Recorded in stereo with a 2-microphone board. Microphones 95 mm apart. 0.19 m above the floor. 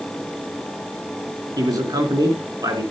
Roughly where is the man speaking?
Right.